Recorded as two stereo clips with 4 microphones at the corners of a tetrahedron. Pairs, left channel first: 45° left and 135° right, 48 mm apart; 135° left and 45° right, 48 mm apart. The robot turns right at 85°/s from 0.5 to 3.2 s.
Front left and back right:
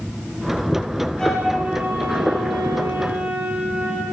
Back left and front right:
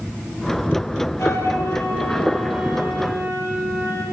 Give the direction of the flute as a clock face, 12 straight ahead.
8 o'clock.